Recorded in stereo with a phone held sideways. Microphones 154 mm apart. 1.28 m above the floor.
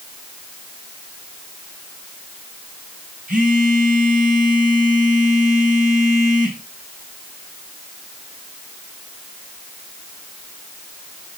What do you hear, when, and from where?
3.3 s a phone buzzing: 60° right (ahead or behind), 4.5 m